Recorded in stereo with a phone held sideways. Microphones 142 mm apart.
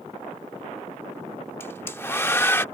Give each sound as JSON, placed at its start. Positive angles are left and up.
{"t": 1.6, "sound": "a hair dryer", "side_deg": 15}